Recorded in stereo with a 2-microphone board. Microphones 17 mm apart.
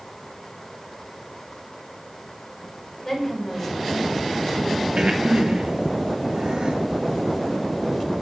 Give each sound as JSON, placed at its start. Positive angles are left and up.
{"t": 3.0, "sound": "a woman speaking", "side_deg": 25, "distance_m": 4.5}
{"t": 5.0, "sound": "breathing", "side_deg": -70, "distance_m": 2.5}